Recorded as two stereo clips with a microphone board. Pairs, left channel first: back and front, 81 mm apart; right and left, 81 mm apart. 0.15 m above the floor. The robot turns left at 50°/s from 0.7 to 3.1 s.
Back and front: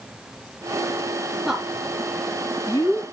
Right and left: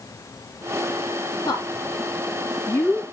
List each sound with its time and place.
1.4 s a woman speaking: 85° right, 2.5 m; by 3.0 s 165° right, 2.5 m